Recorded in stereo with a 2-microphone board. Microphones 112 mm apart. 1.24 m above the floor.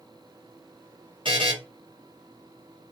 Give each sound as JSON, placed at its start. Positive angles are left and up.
{"t": 1.2, "sound": "a buzzer", "side_deg": -50, "distance_m": 1.3}